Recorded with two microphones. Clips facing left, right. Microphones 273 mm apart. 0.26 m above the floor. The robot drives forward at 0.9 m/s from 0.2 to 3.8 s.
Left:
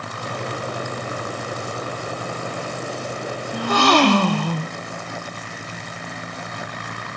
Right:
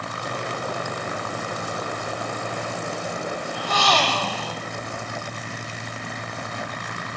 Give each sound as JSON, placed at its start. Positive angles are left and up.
{"t": 3.5, "sound": "a gasp", "side_deg": 50, "distance_m": 0.7}